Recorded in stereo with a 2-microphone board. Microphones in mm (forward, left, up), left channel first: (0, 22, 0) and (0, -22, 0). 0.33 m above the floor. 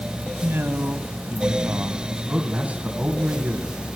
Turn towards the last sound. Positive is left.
turn(degrees=-30)  # may be behind; listen again after turning